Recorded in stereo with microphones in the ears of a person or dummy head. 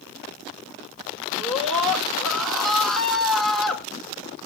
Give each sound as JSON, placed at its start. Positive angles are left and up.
{"t": 1.4, "sound": "a scream", "side_deg": 0, "distance_m": 3.0}